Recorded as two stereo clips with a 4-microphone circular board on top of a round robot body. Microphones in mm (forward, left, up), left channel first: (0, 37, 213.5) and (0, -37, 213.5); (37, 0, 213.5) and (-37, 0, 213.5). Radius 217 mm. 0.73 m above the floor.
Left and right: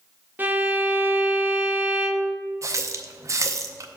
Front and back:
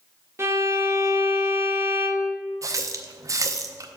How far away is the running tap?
About 0.7 m.